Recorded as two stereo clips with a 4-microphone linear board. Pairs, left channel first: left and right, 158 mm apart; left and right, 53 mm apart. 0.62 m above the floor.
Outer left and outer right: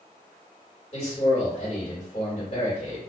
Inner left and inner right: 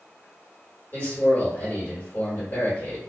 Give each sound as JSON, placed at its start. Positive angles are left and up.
{"t": 0.9, "sound": "a man speaking", "side_deg": 40, "distance_m": 1.7}